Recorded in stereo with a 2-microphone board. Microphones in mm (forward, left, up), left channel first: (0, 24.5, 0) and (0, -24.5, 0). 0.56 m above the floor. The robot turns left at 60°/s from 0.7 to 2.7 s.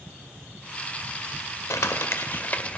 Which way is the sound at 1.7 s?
80° left.